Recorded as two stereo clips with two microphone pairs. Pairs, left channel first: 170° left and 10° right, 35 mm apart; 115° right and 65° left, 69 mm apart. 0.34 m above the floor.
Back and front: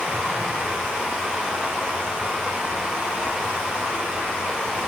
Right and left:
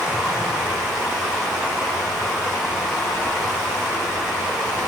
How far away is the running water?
About 1.2 m.